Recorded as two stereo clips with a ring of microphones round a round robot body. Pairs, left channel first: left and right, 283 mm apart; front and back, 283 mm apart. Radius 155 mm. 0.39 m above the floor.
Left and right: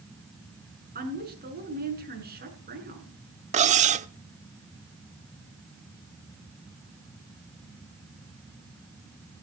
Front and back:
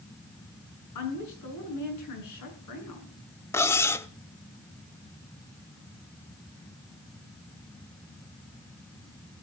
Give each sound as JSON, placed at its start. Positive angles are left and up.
{"t": 0.9, "sound": "a woman speaking", "azimuth_deg": -35, "distance_m": 6.0}
{"t": 3.5, "sound": "cutlery clinking", "azimuth_deg": -70, "distance_m": 0.5}